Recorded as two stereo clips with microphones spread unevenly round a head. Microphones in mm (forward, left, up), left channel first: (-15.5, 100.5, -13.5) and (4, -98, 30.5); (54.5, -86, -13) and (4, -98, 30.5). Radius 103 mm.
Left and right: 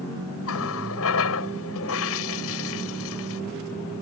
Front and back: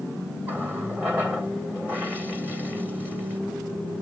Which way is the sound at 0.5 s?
115° left.